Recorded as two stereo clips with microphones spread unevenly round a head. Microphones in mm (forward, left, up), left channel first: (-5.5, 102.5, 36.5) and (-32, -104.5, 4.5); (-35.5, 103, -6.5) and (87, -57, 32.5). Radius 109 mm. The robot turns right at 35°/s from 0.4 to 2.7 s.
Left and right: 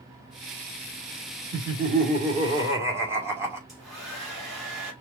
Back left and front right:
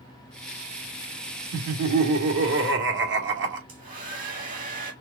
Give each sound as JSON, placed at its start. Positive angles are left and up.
{"t": 1.5, "sound": "laughter", "azimuth_deg": -60, "distance_m": 1.5}
{"t": 3.7, "sound": "a hair dryer", "azimuth_deg": -5, "distance_m": 1.9}